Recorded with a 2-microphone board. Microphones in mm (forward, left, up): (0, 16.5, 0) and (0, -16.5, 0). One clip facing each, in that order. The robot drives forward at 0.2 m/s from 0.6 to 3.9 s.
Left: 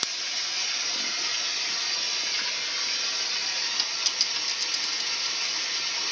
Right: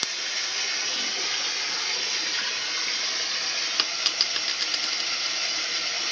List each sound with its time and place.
0.0 s running water: 55° right (ahead or behind), 2.5 m; by 6.1 s 45° right (ahead or behind), 3 m
3.8 s a dropped coin: 45° right (ahead or behind), 0.6 m